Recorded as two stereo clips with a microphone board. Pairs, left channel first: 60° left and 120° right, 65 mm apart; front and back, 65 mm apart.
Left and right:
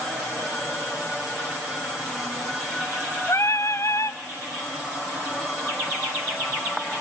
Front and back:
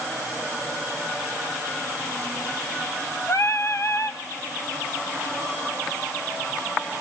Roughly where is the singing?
Ahead left.